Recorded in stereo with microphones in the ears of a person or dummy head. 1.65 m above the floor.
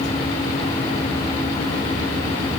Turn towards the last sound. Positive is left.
No sound to turn to.